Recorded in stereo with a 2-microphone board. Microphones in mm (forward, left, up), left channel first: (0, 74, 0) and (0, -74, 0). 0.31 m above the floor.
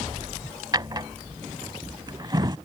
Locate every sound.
0.7 s a drawer: 30° right (ahead or behind)